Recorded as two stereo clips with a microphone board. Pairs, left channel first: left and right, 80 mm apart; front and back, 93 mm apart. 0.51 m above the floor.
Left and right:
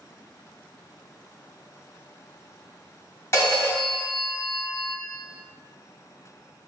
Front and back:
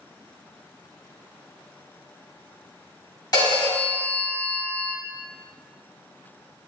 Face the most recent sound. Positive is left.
turn(degrees=40)